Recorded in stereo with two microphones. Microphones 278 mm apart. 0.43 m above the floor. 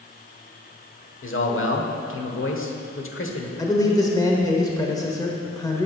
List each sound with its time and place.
1.2 s a man speaking: 50° left (ahead or behind), 1.2 m
3.6 s a man speaking: 15° left (ahead or behind), 1.1 m